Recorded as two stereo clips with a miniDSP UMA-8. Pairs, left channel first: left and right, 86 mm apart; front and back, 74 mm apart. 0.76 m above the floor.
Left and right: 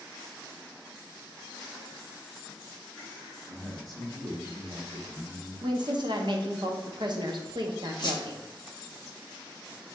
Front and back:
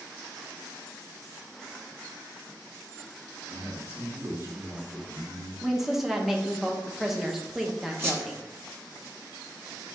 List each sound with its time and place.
3.5 s a man speaking: 125° right, 1.9 m
5.6 s a woman speaking: 95° right, 0.7 m
8.0 s a squeak: 125° left, 0.8 m